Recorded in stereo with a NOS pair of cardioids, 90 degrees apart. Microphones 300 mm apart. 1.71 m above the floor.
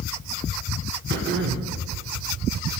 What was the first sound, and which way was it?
Throat clearing, 40° right.